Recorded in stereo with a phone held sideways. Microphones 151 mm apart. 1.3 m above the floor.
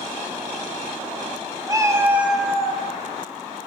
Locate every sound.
1.7 s a cat meowing: 25° right (ahead or behind), 0.6 m; by 2.8 s 5° left (ahead or behind), 0.9 m